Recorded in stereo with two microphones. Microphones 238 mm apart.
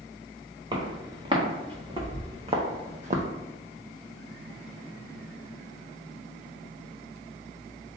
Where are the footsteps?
20° right (ahead or behind), 2.0 m; by 3.2 s 35° right (ahead or behind), 0.7 m.